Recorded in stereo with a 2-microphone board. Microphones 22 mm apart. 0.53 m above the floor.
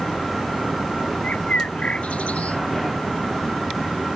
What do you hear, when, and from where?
1.2 s a bird: 85° left